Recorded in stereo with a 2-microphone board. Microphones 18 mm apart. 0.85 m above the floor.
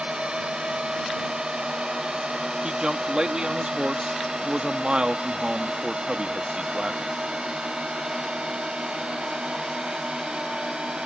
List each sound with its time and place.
0.0 s a drone: 70° right (ahead or behind)
2.6 s a man speaking: 65° right (ahead or behind)